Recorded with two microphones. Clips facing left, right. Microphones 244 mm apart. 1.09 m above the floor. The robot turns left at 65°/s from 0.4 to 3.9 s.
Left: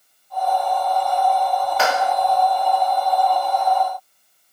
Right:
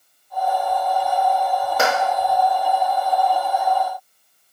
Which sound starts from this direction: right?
A clap, at 1.8 s.